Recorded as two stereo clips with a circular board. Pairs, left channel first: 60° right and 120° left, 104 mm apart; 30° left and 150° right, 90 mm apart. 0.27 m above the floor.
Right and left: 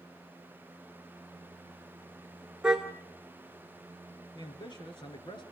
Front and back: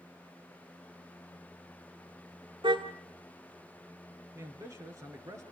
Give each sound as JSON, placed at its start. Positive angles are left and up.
{"t": 2.6, "sound": "a car horn", "azimuth_deg": -155, "distance_m": 2.5}
{"t": 4.3, "sound": "a man speaking", "azimuth_deg": -100, "distance_m": 4.0}